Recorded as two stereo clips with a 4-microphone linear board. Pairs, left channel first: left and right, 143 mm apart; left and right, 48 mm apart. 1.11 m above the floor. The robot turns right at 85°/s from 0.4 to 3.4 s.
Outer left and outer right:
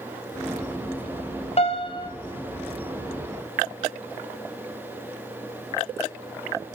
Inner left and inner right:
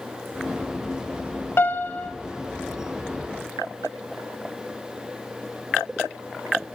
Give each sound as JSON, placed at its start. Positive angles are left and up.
{"t": 1.6, "sound": "a piano", "azimuth_deg": 95, "distance_m": 0.8}